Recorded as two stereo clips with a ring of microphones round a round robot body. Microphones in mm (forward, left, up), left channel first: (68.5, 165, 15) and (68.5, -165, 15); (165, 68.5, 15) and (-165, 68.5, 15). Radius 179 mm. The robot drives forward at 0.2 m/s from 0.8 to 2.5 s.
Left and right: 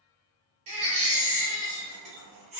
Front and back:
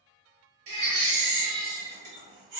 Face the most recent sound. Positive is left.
turn(degrees=-155)